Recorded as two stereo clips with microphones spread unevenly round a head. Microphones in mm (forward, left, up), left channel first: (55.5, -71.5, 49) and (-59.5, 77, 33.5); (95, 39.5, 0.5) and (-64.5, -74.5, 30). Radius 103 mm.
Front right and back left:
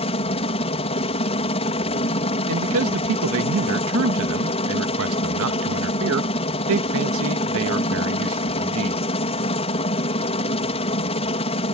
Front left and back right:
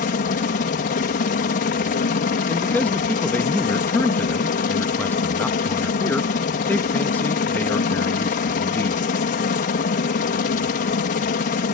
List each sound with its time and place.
0.0 s a helicopter: 5° left
2.5 s a man speaking: 120° left